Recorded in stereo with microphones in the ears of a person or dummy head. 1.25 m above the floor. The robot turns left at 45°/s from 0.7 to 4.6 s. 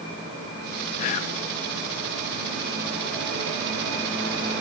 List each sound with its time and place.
1.0 s whispering: 45° left (ahead or behind), 0.8 m; by 1.4 s 35° left (ahead or behind), 0.8 m